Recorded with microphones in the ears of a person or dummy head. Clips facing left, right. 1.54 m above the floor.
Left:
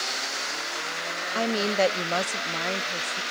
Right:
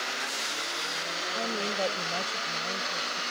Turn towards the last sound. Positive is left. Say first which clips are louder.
# left 8 dB
turn(degrees=75)  # may be behind; listen again after turning